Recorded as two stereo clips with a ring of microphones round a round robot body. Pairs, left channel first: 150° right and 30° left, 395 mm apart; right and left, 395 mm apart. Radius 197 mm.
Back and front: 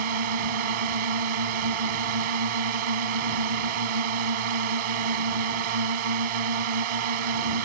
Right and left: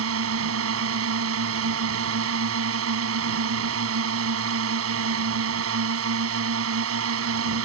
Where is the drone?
35° left.